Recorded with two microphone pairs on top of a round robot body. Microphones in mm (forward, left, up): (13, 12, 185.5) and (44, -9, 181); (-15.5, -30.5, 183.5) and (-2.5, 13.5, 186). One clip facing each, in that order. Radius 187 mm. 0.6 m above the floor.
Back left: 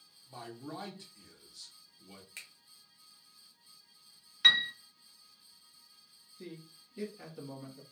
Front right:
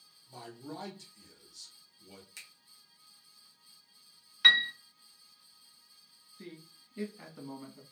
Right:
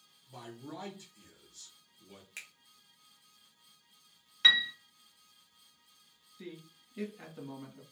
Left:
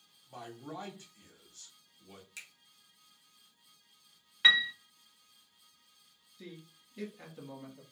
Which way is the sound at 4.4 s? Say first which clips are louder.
Front right 2 dB, left 1 dB; 5° left.